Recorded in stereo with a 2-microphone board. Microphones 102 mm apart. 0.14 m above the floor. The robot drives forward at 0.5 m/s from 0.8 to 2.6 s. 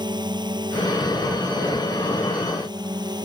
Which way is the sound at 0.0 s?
45° right (ahead or behind).